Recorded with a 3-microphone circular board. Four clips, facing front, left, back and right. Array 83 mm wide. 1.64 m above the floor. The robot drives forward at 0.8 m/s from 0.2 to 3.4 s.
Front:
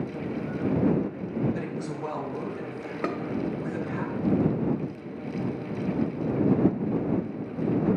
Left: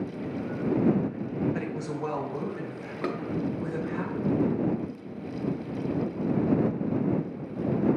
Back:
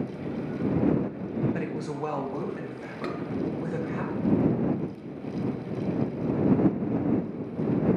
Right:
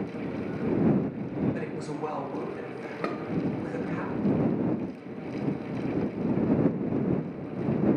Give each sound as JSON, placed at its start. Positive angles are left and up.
{"t": 1.5, "sound": "a woman speaking", "azimuth_deg": 135, "distance_m": 0.6}
{"t": 3.0, "sound": "dishes clattering", "azimuth_deg": -20, "distance_m": 0.7}